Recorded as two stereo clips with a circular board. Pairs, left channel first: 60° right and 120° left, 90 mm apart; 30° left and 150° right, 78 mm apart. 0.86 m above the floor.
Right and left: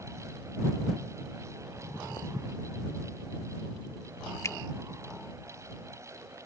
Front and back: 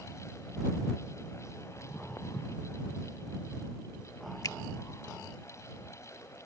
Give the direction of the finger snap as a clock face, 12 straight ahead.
12 o'clock.